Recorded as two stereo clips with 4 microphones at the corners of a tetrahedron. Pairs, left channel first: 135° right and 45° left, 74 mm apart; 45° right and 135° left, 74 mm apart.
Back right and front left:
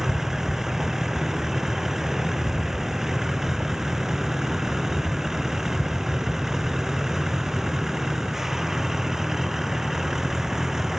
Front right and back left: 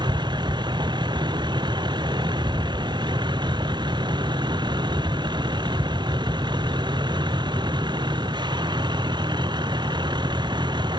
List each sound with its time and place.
0.0 s a vehicle: 130° left